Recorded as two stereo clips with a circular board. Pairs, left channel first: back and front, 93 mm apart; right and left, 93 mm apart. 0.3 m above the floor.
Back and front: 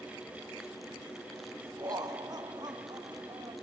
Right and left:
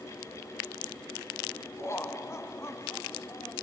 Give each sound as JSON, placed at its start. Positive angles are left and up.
{"t": 1.8, "sound": "laughter", "azimuth_deg": -35, "distance_m": 1.9}